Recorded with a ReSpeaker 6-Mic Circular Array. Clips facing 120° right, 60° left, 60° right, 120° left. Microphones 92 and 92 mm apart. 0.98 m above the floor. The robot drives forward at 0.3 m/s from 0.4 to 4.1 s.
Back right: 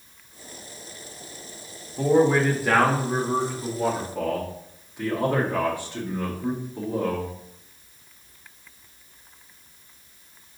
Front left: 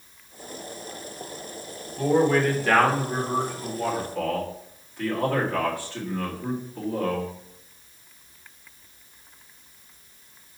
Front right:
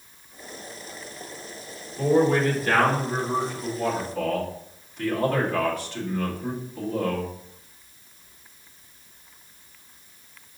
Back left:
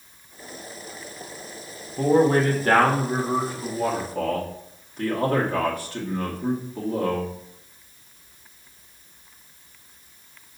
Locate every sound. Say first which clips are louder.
2.0 s a man speaking: back right 2 dB, back left 2 dB; 160° left, 1.8 m; by 7.3 s 165° left, 2.5 m